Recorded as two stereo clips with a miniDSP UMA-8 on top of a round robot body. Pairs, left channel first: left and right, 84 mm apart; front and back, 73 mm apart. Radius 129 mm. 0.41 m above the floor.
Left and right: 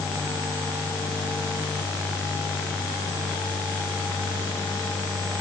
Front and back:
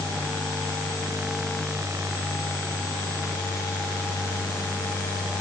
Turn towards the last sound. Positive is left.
No sound to turn to.